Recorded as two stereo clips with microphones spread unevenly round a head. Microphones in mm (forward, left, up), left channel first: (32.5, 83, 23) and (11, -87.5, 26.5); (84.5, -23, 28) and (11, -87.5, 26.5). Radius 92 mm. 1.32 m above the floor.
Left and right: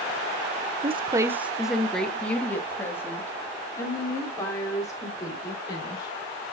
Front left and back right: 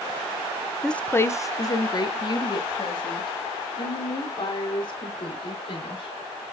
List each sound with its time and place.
0.8 s a woman speaking: 45° right, 0.6 m; by 6.1 s 15° left, 4.5 m